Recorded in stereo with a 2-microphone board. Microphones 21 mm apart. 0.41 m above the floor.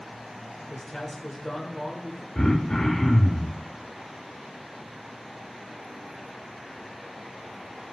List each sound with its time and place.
0.7 s a man speaking: centre (ahead or behind), 1.2 m
2.4 s throat clearing: 35° left (ahead or behind), 2 m